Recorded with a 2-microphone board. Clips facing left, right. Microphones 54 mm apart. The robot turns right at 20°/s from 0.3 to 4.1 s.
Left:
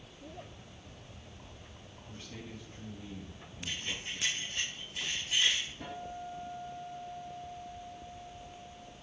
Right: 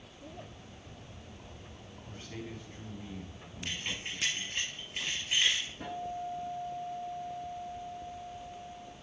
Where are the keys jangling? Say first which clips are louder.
Right 1 dB; 60° right (ahead or behind), 3 m; by 5.7 s 50° right (ahead or behind), 3 m.